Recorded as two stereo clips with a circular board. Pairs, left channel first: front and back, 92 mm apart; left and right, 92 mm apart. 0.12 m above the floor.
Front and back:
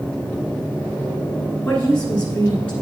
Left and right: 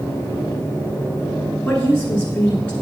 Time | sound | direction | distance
1.6 | a woman speaking | 45° left | 1.2 m